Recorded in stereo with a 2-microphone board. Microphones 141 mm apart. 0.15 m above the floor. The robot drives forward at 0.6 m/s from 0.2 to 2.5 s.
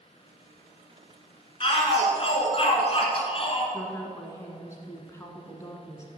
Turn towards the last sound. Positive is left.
turn(degrees=20)  # may be behind; listen again after turning